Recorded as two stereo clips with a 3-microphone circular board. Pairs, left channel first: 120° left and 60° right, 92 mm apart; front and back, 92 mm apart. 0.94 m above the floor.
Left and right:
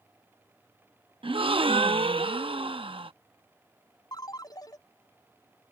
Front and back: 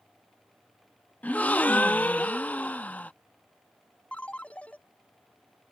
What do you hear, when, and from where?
1.2 s a gasp: 75° right
4.1 s a ringtone: 75° left